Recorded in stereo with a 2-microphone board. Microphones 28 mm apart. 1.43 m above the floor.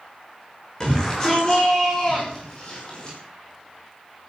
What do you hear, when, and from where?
0.8 s a shout: 25° left (ahead or behind), 6.5 m; by 3.2 s 35° left (ahead or behind), 5.5 m